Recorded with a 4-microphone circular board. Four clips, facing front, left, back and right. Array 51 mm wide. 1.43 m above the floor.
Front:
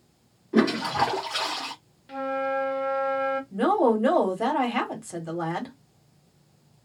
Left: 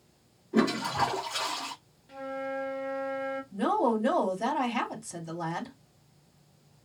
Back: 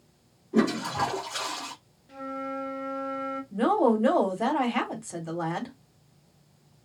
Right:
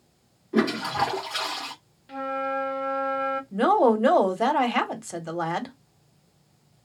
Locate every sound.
0.5 s a toilet flushing: 30° right, 1.2 m
2.1 s a flute: 40° right, 0.6 m
3.5 s a woman speaking: 85° right, 1.2 m